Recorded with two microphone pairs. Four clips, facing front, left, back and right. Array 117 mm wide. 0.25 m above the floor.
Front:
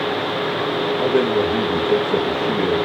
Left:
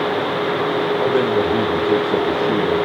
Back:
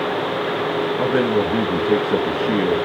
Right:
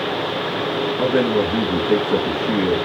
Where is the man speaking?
165° right, 2.5 m.